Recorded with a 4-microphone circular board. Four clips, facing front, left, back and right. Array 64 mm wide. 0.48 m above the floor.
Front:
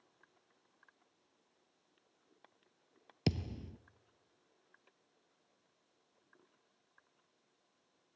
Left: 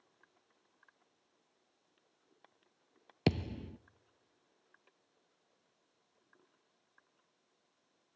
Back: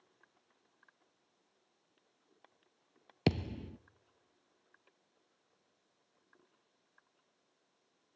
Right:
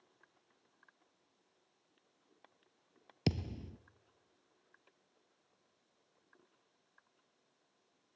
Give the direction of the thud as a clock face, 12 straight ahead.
7 o'clock.